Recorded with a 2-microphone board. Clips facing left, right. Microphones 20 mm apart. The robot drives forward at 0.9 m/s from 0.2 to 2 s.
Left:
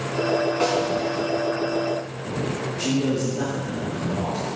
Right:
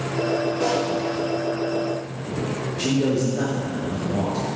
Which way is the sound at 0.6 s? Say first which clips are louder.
Even; 40° left (ahead or behind).